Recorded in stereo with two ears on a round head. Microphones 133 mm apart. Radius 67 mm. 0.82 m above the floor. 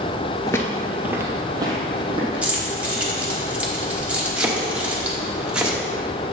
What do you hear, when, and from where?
0.5 s footsteps: 25° left (ahead or behind), 0.8 m; by 2.5 s 35° right (ahead or behind), 2.5 m
2.4 s keys jangling: 10° right (ahead or behind), 1.1 m
4.4 s chopping: 5° right (ahead or behind), 1.0 m